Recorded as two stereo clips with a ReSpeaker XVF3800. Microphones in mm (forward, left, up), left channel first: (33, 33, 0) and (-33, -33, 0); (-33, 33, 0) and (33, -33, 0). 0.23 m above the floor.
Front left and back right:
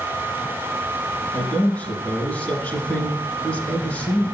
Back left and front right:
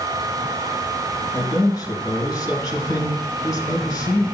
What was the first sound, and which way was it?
A man speaking, 110° left.